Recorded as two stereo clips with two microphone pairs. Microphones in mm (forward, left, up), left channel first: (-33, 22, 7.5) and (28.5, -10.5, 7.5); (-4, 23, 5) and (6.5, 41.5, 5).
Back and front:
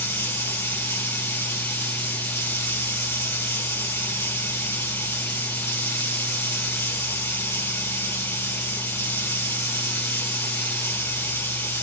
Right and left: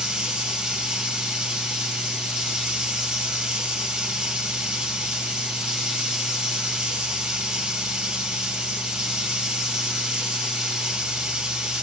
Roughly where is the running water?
Left.